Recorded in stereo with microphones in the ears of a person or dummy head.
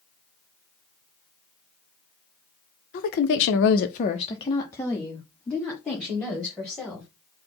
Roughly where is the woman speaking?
Left.